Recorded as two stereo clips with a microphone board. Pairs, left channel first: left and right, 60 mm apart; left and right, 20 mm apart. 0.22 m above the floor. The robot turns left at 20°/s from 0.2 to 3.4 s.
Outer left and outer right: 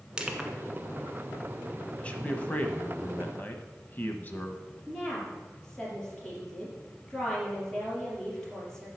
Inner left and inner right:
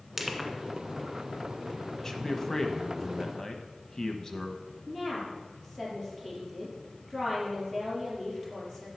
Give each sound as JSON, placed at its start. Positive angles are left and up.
{"t": 0.2, "sound": "crushing", "side_deg": -15, "distance_m": 1.4}
{"t": 2.0, "sound": "a man speaking", "side_deg": 20, "distance_m": 1.1}
{"t": 4.9, "sound": "a woman speaking", "side_deg": 10, "distance_m": 4.5}